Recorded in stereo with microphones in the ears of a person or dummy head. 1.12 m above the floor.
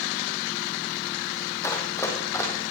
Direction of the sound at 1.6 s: 10° left (ahead or behind).